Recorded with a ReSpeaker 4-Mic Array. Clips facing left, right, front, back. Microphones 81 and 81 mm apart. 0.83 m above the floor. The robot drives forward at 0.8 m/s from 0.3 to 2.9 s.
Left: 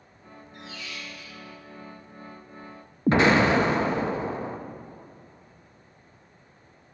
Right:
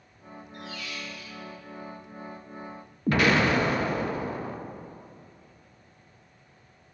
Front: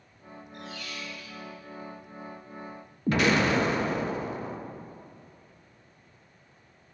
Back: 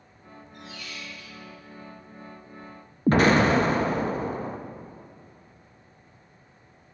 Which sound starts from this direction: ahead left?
A squeak, at 0.5 s.